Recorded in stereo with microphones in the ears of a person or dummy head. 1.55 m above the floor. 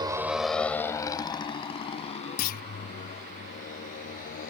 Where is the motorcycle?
15° right (ahead or behind); by 4.5 s 45° left (ahead or behind).